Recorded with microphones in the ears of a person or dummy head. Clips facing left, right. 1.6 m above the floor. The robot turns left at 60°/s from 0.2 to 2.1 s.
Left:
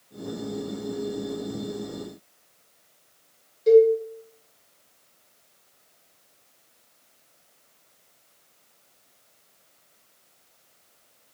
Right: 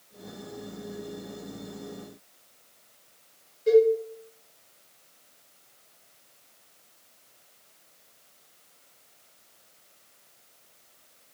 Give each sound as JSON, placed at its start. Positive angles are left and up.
{"t": 3.7, "sound": "a cowbell", "side_deg": 60, "distance_m": 1.9}